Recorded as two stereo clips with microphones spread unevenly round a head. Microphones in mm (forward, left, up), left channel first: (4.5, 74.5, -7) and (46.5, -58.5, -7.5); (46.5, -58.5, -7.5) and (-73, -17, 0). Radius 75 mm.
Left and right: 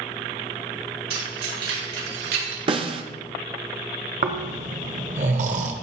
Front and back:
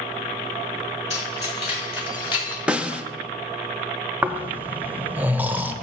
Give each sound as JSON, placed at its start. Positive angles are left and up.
{"t": 1.1, "sound": "keys jangling", "azimuth_deg": -55, "distance_m": 5.0}
{"t": 2.7, "sound": "a snare drum", "azimuth_deg": -120, "distance_m": 0.7}
{"t": 4.2, "sound": "snoring", "azimuth_deg": -120, "distance_m": 0.8}